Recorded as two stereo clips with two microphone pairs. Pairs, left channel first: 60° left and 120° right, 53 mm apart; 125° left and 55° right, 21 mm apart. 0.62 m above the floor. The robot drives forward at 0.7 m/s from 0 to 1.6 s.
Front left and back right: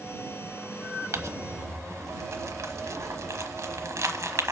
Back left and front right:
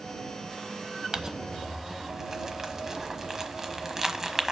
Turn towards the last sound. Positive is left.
turn(degrees=-125)